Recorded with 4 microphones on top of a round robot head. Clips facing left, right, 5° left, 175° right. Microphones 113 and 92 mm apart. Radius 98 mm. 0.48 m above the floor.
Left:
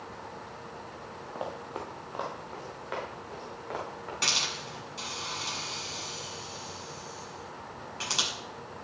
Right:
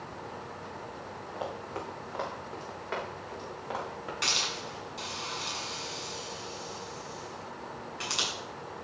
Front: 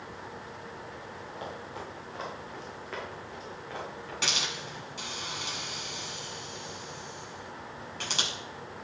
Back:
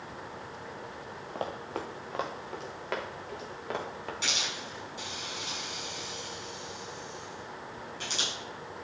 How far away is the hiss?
About 6 m.